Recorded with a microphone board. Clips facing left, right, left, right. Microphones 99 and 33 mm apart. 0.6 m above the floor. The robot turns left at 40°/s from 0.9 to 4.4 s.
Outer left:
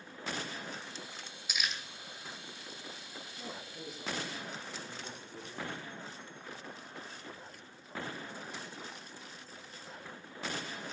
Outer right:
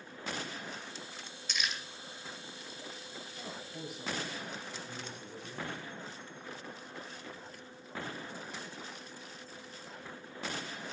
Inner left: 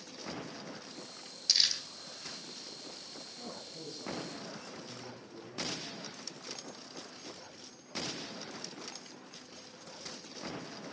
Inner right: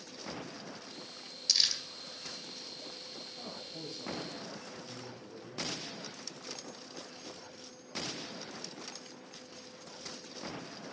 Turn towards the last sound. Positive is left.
turn(degrees=-95)